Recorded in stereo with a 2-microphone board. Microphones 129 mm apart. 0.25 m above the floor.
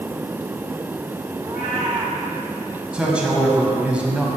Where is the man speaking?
10° right (ahead or behind), 1.3 m.